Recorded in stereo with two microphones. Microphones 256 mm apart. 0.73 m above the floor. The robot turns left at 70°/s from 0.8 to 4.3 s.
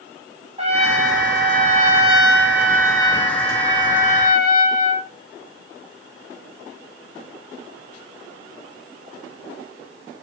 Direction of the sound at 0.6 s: 50° right.